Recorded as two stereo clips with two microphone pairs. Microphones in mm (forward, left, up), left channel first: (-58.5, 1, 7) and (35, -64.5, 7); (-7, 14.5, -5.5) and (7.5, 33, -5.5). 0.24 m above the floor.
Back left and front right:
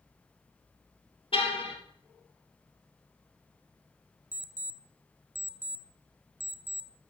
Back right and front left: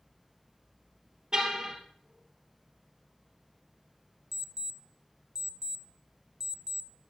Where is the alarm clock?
25° left, 0.8 m.